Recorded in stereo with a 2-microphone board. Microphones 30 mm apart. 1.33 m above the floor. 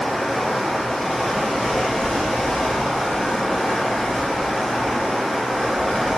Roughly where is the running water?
Centre.